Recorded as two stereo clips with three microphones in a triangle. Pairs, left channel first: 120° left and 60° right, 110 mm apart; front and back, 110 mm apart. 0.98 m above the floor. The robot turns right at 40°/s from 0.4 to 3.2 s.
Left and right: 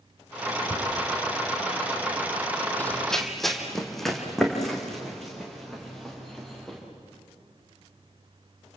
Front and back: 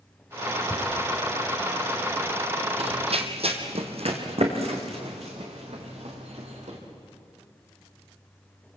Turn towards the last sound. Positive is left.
turn(degrees=-155)